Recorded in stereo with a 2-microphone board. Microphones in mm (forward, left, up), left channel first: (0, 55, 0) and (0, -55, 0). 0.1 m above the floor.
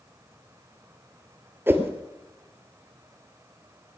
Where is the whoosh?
20° right (ahead or behind), 1.3 m.